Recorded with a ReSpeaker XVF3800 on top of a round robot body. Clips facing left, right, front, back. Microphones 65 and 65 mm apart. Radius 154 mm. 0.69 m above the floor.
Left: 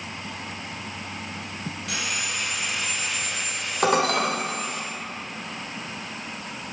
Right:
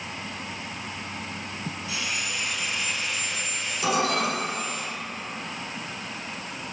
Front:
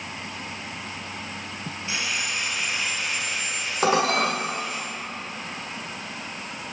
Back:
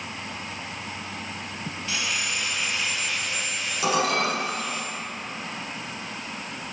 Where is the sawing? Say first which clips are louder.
Left 2 dB, front 1 dB; 70° left, 1.6 m.